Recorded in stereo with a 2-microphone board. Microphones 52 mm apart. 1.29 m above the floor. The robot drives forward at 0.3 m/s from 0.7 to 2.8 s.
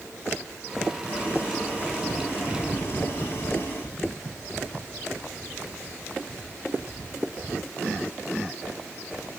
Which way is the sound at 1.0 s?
30° left (ahead or behind).